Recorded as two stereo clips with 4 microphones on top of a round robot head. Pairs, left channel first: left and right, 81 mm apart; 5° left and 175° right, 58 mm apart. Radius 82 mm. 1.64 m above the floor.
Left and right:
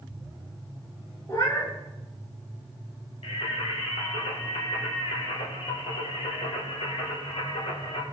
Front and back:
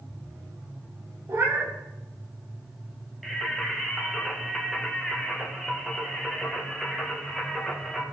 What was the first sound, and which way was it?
A cat meowing, 150° left.